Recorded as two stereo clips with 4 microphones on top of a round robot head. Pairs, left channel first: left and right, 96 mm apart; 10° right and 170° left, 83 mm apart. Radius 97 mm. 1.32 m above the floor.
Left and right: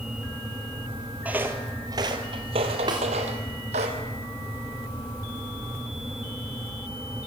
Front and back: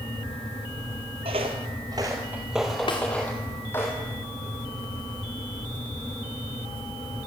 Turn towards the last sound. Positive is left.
turn(degrees=-40)